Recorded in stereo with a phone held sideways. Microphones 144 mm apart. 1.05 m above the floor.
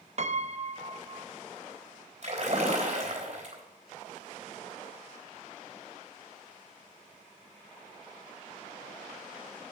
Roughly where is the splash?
Right.